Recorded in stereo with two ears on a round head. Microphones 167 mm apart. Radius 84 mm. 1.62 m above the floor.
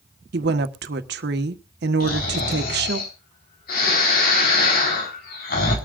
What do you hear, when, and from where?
0.3 s a woman speaking: 60° right (ahead or behind), 1.2 m
2.0 s snoring: 55° left (ahead or behind), 4 m